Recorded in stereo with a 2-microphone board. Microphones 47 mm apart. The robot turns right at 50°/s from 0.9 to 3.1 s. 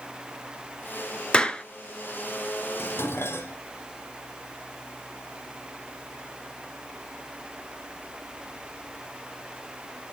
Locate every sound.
1.3 s a clap: 25° left (ahead or behind), 1.3 m; by 1.6 s 20° left (ahead or behind), 1.3 m
2.8 s dishes clattering: 70° left (ahead or behind), 2.5 m; by 3.5 s 65° left (ahead or behind), 2.5 m